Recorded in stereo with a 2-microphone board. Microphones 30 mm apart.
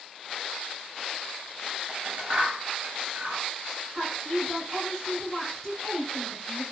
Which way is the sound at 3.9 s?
5° left (ahead or behind).